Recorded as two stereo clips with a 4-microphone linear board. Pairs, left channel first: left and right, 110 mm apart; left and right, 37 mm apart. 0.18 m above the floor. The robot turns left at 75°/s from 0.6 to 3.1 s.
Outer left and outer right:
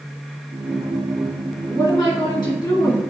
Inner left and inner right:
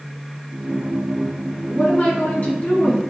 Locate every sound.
1.7 s a woman speaking: 135° left, 2.0 m; by 3.0 s 35° left, 2.0 m